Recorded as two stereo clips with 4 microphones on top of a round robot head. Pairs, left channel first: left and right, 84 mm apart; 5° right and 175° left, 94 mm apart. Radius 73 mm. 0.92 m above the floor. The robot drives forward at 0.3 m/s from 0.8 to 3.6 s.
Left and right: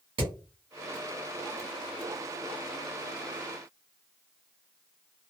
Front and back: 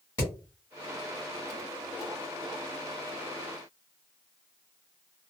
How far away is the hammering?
About 1.5 m.